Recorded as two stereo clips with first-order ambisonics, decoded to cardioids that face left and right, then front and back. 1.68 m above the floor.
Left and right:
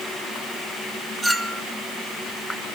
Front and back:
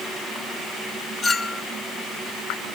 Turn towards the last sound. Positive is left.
turn(degrees=-30)